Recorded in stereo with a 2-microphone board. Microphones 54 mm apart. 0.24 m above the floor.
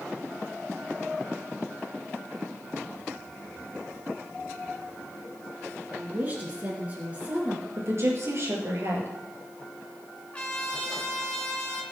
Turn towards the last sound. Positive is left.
turn(degrees=15)  # may be behind; listen again after turning